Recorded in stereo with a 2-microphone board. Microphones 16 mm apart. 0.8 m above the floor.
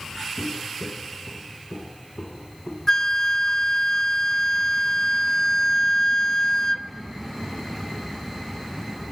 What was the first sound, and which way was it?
Footsteps, 60° left (ahead or behind).